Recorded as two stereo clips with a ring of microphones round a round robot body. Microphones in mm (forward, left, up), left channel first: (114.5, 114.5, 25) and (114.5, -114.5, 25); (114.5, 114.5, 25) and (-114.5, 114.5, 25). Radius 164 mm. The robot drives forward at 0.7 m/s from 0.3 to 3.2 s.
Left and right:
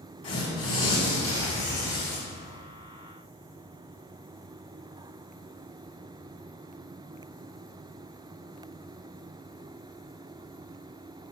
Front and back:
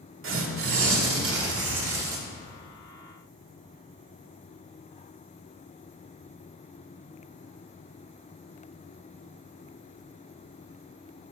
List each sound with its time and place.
0.2 s tearing paper: 160° left, 0.9 m; by 2.2 s 170° left, 2 m